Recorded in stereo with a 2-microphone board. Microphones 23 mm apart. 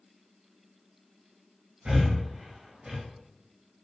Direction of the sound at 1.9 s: 60° right (ahead or behind).